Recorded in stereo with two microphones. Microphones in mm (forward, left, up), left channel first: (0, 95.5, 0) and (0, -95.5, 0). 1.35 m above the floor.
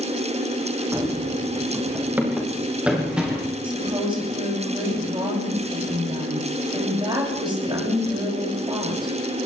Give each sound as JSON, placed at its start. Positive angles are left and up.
{"t": 0.9, "sound": "running footsteps", "side_deg": -15, "distance_m": 5.0}
{"t": 3.6, "sound": "a woman speaking", "side_deg": -25, "distance_m": 9.5}